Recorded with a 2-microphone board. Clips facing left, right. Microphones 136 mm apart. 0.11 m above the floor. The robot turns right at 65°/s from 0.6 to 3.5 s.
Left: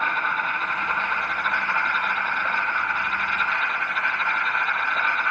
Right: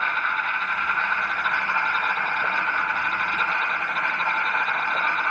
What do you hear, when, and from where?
0.0 s an insect: 135° left, 3 m; by 5.3 s 40° right, 3 m